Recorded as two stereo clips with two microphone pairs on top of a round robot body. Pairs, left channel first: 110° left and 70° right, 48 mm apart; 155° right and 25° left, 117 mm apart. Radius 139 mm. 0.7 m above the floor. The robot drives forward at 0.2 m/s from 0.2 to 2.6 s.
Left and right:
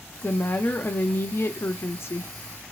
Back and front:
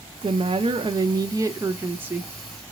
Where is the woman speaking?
60° left, 0.7 m; by 2.3 s 115° left, 0.7 m.